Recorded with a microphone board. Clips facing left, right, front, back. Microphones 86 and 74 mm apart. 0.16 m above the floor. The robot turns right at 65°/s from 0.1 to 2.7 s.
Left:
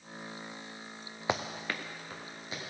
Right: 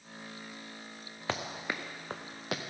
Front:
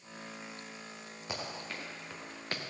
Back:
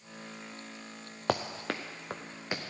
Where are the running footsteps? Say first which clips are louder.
Left 2 dB, back 10 dB; 165° left, 1.0 m; by 2.7 s 90° right, 1.6 m.